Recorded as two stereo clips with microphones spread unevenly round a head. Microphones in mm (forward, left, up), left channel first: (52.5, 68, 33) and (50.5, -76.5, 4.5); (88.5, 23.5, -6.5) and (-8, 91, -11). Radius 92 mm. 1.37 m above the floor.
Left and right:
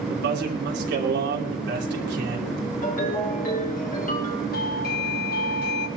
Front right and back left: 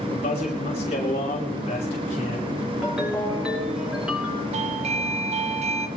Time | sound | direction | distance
0.1 | a man speaking | 95° right | 3 m
2.8 | a ringtone | 60° left | 6 m
4.5 | a doorbell | 125° left | 1.0 m